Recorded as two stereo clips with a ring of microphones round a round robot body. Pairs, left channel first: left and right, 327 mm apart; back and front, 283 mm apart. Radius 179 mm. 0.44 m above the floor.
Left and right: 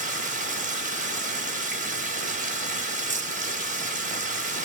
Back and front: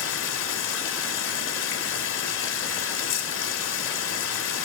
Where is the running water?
150° right, 0.9 m.